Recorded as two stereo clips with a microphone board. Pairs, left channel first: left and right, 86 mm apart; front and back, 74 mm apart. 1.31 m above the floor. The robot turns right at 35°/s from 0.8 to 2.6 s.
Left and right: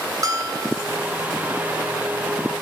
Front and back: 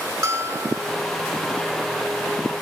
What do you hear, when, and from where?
0.2 s a bell: 135° right, 2.5 m